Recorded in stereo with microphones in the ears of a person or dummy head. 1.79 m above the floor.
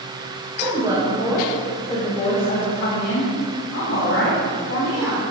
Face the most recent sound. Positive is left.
turn(degrees=80)